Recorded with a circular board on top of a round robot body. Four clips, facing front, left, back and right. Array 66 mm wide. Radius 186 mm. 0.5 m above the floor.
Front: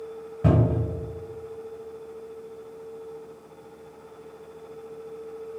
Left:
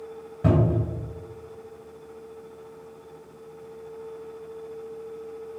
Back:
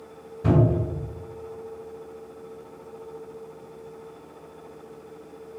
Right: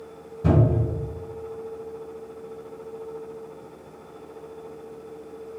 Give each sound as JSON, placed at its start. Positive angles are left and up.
{"t": 0.4, "sound": "a cupboard door", "azimuth_deg": 45, "distance_m": 1.5}